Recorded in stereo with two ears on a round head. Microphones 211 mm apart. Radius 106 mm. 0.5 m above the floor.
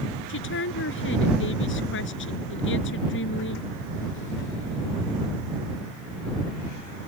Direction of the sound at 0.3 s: 55° left (ahead or behind).